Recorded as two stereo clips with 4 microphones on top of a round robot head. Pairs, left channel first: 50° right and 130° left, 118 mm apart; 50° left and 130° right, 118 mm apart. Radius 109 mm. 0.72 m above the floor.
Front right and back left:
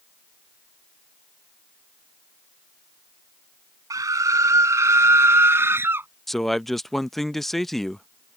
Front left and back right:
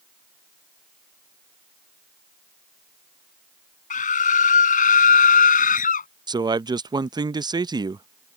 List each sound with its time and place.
3.9 s a scream: 65° left; by 6.1 s 55° left
6.3 s a man speaking: 140° right